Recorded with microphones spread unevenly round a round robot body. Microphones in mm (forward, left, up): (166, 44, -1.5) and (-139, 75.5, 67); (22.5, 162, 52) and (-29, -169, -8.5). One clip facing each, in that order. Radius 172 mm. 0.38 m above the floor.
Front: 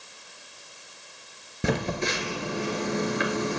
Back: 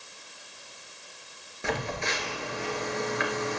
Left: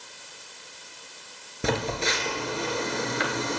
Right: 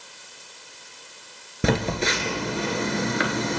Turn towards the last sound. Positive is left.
turn(degrees=-65)